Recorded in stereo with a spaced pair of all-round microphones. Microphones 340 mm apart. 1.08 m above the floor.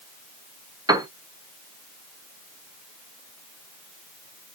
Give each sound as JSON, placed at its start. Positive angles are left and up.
{"t": 0.9, "sound": "a piano", "side_deg": -10, "distance_m": 0.7}